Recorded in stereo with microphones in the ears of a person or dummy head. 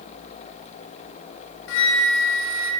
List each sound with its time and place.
1.7 s a flute: 70° left (ahead or behind), 1.7 m